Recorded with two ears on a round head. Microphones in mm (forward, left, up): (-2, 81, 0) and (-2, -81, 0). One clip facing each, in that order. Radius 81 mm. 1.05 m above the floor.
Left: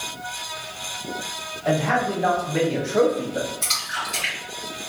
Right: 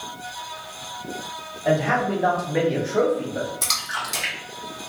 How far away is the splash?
About 1.2 m.